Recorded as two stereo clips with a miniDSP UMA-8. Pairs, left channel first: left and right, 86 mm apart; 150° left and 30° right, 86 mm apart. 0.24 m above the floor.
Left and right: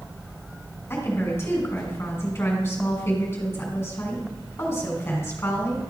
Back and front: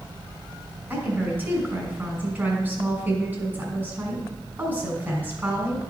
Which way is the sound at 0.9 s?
35° left.